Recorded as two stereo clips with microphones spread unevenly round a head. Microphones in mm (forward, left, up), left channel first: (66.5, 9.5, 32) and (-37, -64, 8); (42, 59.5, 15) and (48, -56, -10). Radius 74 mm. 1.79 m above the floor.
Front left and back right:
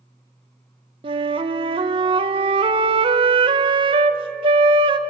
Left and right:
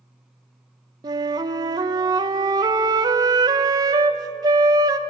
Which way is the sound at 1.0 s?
135° right.